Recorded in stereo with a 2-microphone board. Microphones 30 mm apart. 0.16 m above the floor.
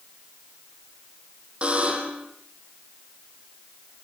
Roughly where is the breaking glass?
No breaking glass in this recording.